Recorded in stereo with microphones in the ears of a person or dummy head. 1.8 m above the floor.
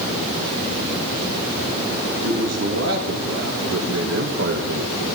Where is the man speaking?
85° right, 3 m; by 5.0 s 65° right (ahead or behind), 2.0 m.